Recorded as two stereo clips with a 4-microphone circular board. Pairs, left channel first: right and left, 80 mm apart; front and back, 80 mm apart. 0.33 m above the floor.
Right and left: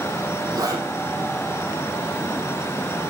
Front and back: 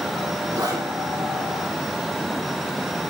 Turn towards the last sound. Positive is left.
turn(degrees=140)